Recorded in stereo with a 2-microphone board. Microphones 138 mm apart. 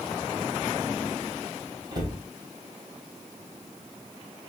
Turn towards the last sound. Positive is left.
turn(degrees=-35)  # may be behind; listen again after turning